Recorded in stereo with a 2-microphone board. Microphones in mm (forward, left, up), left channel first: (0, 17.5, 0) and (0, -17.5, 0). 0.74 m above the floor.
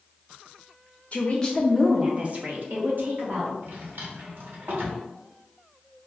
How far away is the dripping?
I don't hear dripping.